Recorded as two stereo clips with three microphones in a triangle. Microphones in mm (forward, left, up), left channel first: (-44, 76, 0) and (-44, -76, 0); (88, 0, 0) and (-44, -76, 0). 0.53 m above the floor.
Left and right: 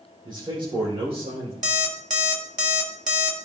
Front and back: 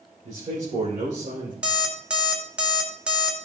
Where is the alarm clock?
70° right, 1.5 m.